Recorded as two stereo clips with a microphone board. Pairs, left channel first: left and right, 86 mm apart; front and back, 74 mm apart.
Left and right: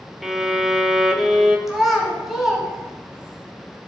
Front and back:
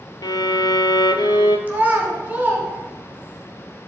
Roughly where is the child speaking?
Behind.